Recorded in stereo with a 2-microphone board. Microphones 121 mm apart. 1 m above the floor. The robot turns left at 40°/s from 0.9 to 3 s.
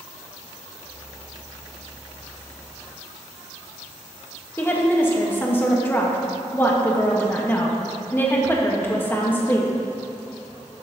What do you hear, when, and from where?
4.6 s a woman speaking: 15° left (ahead or behind), 1.1 m